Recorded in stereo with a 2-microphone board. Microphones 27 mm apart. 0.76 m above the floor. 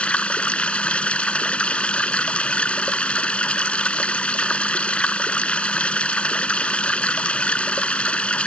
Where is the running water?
50° left (ahead or behind).